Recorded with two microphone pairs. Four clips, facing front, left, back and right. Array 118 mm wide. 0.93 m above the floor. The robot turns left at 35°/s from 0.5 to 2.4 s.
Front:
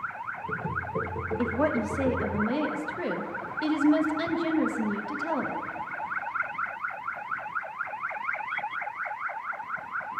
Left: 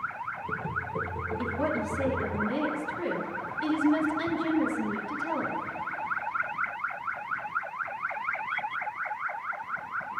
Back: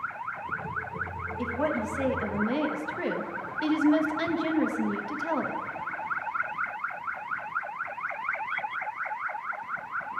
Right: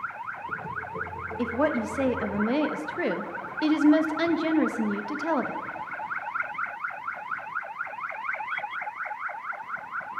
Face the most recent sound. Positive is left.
turn(degrees=-90)